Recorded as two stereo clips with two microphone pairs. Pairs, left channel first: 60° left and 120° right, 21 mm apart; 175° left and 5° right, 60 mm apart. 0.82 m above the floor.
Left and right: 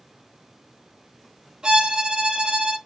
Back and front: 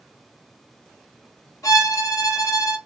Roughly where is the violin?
Behind right.